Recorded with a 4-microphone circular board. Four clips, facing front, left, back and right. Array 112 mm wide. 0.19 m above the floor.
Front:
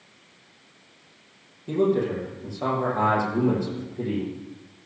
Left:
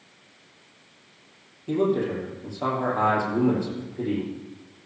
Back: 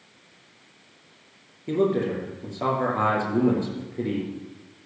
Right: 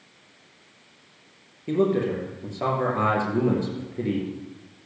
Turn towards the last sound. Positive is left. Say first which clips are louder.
# right 1 dB, front 1 dB
turn(degrees=-130)